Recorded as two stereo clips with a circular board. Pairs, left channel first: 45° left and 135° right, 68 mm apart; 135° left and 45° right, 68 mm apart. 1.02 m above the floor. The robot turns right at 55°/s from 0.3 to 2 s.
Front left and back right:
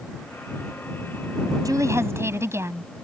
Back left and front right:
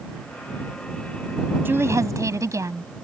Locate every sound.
1.6 s a woman speaking: 105° right; by 2.9 s 85° right